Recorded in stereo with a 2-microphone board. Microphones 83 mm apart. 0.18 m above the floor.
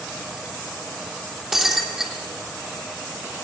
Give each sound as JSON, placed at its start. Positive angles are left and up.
{"t": 1.5, "sound": "breaking glass", "side_deg": -5, "distance_m": 3.0}